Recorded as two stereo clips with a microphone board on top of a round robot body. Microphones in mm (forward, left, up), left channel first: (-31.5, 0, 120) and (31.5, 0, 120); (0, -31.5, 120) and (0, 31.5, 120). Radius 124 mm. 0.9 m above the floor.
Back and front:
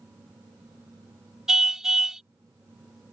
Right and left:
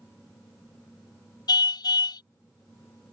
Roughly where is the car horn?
Right.